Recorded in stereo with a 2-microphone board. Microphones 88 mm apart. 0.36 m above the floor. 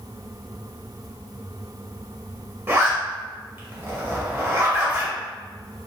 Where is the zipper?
25° right (ahead or behind), 0.9 m.